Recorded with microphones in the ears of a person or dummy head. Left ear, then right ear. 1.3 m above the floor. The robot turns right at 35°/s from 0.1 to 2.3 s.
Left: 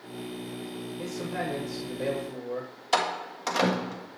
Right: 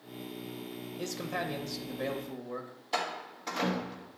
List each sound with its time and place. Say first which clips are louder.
1.0 s a man speaking: left 2 dB; 40° right, 1.1 m; by 2.7 s 5° left, 1.1 m
2.9 s a door slam: left 7 dB; 55° left (ahead or behind), 1.2 m